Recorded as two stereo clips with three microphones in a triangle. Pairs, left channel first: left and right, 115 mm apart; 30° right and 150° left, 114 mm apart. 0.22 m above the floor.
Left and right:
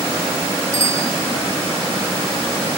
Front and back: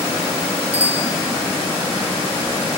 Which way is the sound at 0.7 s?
30° right.